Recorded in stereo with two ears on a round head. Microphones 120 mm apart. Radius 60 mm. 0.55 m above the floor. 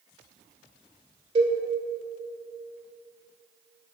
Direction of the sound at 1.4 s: 40° right (ahead or behind).